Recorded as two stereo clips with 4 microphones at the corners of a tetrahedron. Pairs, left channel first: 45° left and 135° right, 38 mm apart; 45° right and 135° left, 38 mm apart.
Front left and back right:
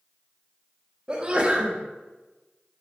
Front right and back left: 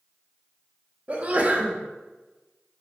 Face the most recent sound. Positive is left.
turn(degrees=170)